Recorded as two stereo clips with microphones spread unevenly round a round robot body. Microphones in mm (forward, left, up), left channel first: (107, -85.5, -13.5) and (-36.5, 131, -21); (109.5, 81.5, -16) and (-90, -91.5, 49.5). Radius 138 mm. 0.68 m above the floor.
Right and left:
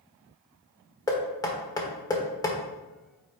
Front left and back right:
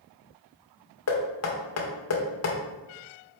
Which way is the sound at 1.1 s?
20° left.